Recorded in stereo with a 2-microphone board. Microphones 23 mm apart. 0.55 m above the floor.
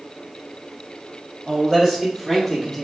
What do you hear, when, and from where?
1.5 s a man speaking: 15° right (ahead or behind), 1.5 m; by 2.8 s centre (ahead or behind), 1.0 m